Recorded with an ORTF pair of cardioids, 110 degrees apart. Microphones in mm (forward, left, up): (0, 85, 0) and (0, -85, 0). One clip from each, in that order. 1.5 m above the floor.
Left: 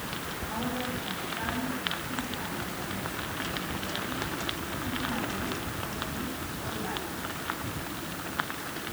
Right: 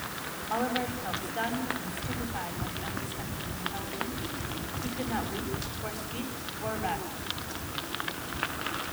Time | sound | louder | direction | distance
0.5 | a woman speaking | right 5 dB | 60° right | 9.5 m